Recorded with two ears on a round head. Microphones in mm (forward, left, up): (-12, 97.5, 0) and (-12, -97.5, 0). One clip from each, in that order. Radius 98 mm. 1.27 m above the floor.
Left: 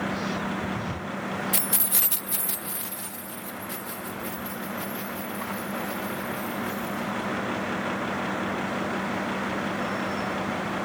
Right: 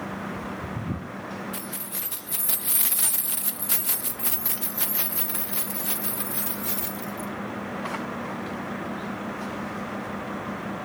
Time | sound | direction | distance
1.5 | keys jangling | 45° left (ahead or behind) | 0.7 m